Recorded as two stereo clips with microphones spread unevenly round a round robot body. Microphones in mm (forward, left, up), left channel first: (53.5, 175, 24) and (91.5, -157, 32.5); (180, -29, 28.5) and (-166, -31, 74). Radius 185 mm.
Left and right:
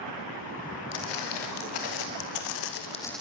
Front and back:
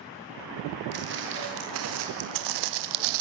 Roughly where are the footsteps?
Behind left.